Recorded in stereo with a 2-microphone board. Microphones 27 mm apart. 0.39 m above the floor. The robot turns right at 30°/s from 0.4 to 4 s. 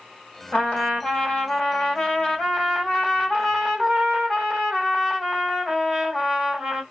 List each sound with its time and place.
0.5 s a trumpet: 105° left, 2.0 m; by 6.8 s 150° right, 2.0 m